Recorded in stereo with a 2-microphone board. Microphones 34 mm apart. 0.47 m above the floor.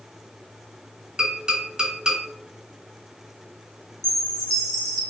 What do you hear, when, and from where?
1.2 s tapping: 20° right (ahead or behind), 1.2 m
4.0 s a chime: 15° left (ahead or behind), 0.9 m